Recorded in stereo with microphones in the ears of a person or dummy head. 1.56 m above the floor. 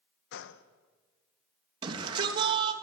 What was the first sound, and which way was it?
A gunshot, 65° left (ahead or behind).